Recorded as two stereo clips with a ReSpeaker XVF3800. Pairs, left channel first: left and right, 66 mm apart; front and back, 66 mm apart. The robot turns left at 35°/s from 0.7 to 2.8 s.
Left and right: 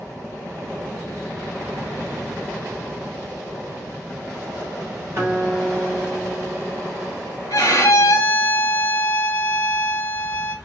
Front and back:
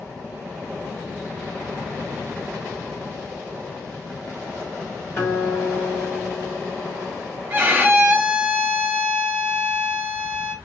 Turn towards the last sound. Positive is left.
turn(degrees=120)